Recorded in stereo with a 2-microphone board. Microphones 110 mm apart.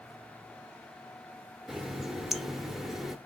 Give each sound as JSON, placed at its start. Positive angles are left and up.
{"t": 1.7, "sound": "a running tap", "side_deg": -5, "distance_m": 0.8}